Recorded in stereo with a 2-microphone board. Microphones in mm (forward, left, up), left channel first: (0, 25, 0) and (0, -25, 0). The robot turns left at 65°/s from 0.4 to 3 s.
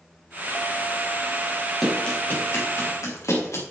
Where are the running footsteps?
Centre (ahead or behind), 7 m; by 3.6 s 70° left (ahead or behind), 6 m.